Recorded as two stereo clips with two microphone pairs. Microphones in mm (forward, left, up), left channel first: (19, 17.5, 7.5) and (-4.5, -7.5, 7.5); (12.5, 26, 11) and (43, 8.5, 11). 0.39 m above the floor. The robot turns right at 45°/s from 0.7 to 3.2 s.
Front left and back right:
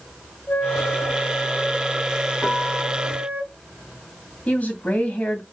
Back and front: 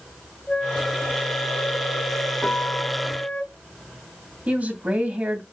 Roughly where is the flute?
Left.